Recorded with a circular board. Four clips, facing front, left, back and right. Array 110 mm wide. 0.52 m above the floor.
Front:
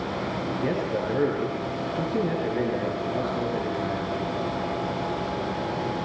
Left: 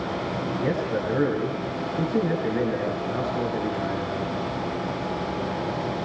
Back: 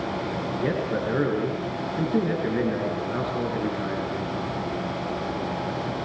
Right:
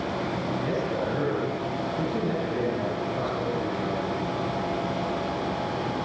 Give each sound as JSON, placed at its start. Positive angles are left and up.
{"t": 0.5, "sound": "a man speaking", "azimuth_deg": 160, "distance_m": 7.5}